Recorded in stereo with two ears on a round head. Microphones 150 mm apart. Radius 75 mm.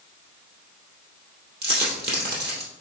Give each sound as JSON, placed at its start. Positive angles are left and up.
{"t": 1.6, "sound": "a dropped coin", "side_deg": -60, "distance_m": 2.5}